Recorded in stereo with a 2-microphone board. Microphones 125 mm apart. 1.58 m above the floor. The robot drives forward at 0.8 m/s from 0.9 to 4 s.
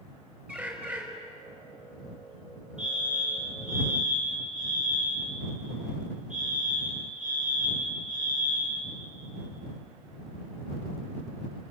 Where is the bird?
15° right (ahead or behind), 4.5 m.